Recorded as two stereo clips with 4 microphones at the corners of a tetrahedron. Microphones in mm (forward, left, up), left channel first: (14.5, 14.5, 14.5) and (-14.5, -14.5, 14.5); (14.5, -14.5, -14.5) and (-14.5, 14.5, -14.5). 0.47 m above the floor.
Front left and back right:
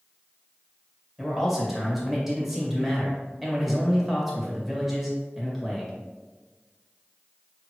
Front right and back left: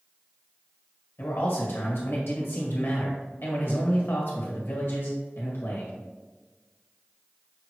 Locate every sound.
1.2 s a man speaking: 50° right, 1.5 m